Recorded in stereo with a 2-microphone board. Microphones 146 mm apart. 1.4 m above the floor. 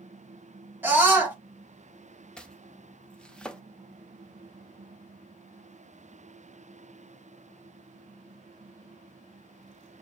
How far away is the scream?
About 2 m.